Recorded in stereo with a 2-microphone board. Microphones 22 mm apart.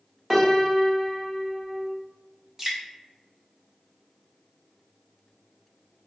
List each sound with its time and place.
0.3 s a piano: 10° right (ahead or behind), 1.0 m
2.6 s dripping: 20° right (ahead or behind), 1.0 m